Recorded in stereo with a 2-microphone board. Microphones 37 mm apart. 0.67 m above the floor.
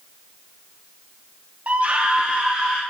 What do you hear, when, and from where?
1.7 s a scream: 35° right (ahead or behind), 0.6 m; by 2.8 s 25° right (ahead or behind), 1.6 m